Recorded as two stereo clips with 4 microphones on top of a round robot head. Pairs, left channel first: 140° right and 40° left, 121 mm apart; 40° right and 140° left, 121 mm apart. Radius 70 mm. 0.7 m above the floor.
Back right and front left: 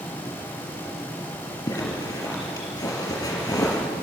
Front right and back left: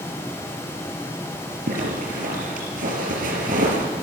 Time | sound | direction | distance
1.7 | a zipper | 160° left | 4.5 m